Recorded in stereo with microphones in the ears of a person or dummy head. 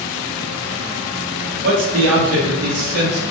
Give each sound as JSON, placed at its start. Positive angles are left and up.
{"t": 1.6, "sound": "a man speaking", "side_deg": -60, "distance_m": 0.7}